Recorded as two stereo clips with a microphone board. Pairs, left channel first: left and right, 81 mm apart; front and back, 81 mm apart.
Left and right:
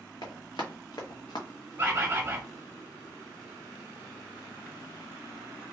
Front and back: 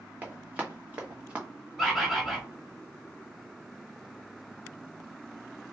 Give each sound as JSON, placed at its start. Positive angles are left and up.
{"t": 0.2, "sound": "running footsteps", "azimuth_deg": 110, "distance_m": 1.6}
{"t": 1.8, "sound": "a bird", "azimuth_deg": -95, "distance_m": 1.0}